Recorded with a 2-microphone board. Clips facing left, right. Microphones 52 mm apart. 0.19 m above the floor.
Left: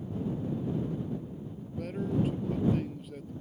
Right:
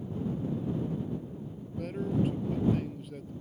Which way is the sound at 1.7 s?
Centre (ahead or behind).